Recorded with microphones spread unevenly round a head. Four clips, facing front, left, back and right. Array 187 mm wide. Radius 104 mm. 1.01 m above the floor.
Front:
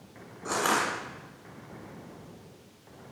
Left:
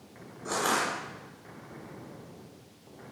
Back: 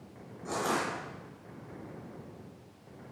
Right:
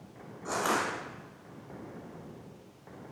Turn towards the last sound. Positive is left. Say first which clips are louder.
# left 1 dB, front 4 dB
turn(degrees=-5)